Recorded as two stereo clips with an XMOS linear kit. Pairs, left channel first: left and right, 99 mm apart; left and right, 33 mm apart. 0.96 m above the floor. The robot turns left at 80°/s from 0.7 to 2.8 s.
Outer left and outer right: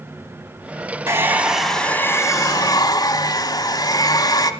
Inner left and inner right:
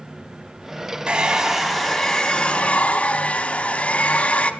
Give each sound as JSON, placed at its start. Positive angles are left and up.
{"t": 1.1, "sound": "a hair dryer", "azimuth_deg": -135, "distance_m": 1.0}